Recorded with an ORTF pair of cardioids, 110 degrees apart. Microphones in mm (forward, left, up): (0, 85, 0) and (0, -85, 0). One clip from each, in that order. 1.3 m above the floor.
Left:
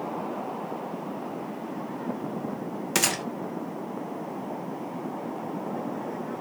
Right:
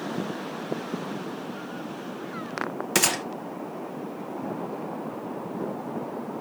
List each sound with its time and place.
3.0 s a gunshot: 5° right, 0.7 m